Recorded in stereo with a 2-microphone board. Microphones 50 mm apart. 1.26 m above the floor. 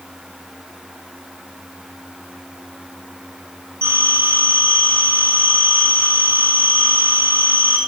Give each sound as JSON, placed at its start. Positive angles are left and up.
{"t": 3.8, "sound": "a phone ringing", "side_deg": -60, "distance_m": 8.5}